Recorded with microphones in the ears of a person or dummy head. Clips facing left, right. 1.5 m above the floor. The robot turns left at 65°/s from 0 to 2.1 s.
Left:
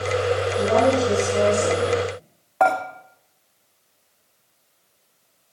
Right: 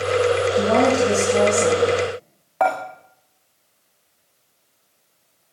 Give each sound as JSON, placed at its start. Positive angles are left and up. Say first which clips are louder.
{"t": 0.5, "sound": "a woman speaking", "louder": "left 1 dB", "azimuth_deg": -45, "distance_m": 8.5}
{"t": 2.6, "sound": "dishes clattering", "louder": "left 1 dB", "side_deg": 0, "distance_m": 2.0}